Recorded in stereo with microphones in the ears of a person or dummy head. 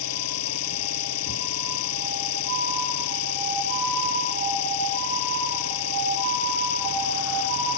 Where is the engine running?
85° left.